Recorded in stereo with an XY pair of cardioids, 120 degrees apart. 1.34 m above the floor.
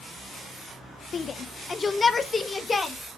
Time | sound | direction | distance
1.1 | a shout | 45° left | 0.6 m